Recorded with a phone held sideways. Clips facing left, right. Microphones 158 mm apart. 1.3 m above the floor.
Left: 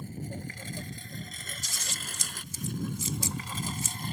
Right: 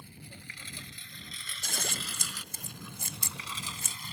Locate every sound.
0.0 s a lawn mower: 45° left (ahead or behind); by 4.1 s 50° left (ahead or behind)
1.6 s scissors: 60° right (ahead or behind)